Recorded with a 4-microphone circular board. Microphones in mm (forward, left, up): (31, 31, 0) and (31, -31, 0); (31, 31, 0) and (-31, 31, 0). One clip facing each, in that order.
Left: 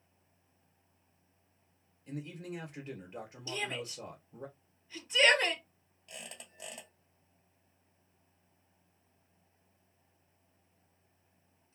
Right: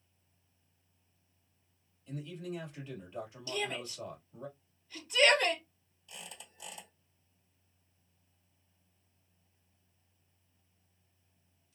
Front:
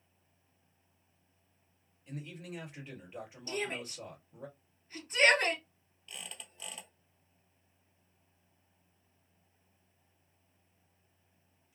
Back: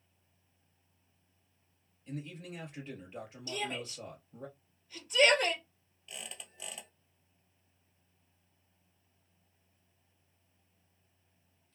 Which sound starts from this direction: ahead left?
A shout, at 3.5 s.